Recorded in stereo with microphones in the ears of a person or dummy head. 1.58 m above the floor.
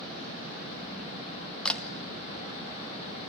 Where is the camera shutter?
10° left (ahead or behind), 1.0 m.